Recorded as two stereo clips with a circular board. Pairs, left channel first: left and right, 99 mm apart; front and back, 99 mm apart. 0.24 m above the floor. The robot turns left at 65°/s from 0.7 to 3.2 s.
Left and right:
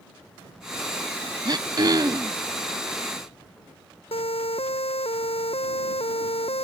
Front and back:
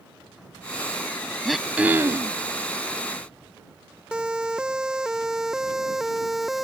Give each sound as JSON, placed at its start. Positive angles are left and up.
{"t": 1.4, "sound": "throat clearing", "azimuth_deg": -85}
{"t": 4.1, "sound": "a siren", "azimuth_deg": 100}